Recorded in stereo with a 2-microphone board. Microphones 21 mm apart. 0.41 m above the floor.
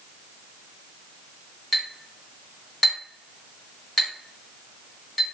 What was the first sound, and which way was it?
A clink, 10° left (ahead or behind).